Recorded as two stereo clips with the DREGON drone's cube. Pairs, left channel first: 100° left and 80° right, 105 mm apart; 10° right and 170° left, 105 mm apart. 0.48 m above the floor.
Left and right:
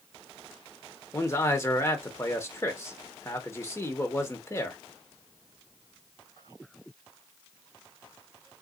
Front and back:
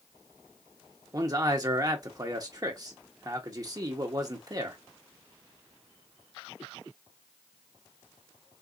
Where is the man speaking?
145° left, 0.9 m.